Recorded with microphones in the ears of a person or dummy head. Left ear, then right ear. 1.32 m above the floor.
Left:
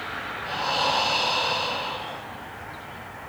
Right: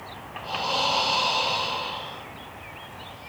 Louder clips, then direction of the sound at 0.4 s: Even; 5° right (ahead or behind).